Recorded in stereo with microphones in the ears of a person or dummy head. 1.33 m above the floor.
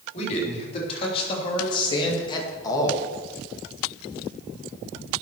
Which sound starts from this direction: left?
A man speaking, at 0.1 s.